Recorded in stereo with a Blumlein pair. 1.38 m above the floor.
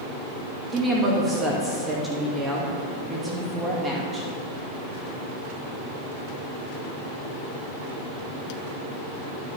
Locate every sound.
0.7 s a woman speaking: 10° right, 2 m